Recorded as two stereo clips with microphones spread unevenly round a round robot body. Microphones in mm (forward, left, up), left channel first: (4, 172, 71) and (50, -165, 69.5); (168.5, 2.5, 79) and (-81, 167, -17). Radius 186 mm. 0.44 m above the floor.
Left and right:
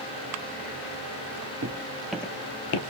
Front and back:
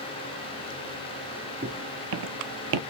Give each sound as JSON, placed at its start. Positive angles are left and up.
{"t": 1.6, "sound": "footsteps", "azimuth_deg": -135, "distance_m": 0.7}